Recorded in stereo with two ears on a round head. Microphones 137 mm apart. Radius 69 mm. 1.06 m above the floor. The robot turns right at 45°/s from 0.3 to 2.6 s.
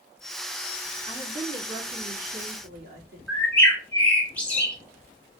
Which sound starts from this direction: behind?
A woman speaking, at 1.1 s.